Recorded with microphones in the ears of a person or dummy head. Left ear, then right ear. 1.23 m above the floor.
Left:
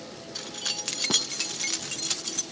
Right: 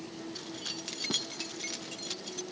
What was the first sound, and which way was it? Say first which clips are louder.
Keys jangling: left 9 dB; 20° left (ahead or behind).